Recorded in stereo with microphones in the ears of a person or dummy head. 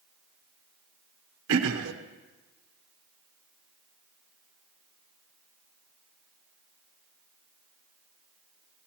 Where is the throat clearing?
75° right (ahead or behind), 1.0 m.